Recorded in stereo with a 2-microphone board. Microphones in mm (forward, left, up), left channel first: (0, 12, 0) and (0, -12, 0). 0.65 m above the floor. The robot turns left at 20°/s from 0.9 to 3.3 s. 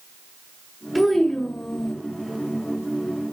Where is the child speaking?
5° left (ahead or behind), 2 m; by 1.9 s 25° left (ahead or behind), 2 m.